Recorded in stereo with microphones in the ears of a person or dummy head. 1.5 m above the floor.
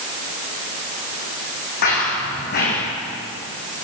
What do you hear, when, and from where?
1.8 s running footsteps: 55° left (ahead or behind), 6 m